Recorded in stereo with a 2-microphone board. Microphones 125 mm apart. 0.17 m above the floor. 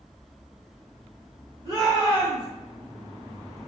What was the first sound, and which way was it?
A shout, 40° right (ahead or behind).